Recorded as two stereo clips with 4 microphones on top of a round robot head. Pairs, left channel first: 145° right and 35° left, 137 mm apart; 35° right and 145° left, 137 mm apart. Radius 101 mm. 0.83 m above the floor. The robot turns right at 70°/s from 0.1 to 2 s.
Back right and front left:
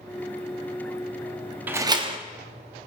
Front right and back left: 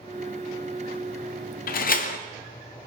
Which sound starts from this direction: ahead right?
A door slam, at 1.7 s.